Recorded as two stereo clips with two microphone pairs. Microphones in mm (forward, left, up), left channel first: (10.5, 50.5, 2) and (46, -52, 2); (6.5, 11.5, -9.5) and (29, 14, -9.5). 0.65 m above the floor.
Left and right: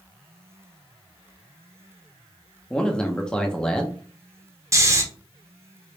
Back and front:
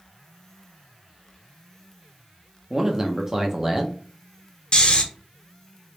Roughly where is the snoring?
Behind right.